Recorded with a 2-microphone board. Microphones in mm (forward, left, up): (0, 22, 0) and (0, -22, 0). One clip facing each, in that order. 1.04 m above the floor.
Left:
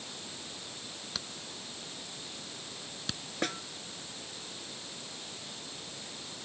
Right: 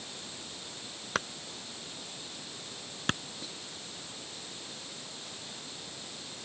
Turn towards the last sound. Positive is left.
turn(degrees=80)